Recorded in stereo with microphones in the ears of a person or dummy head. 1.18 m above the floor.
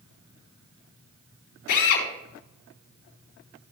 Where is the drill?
70° left (ahead or behind), 3.5 m.